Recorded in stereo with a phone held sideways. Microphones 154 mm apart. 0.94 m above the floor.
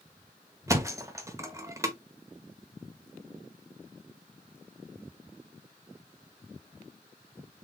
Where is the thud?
20° right (ahead or behind), 0.8 m.